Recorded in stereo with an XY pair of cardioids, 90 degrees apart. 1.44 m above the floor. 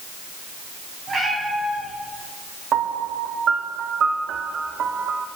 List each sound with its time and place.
1.1 s a cat meowing: 50° right, 4 m
2.7 s a piano: 65° right, 0.8 m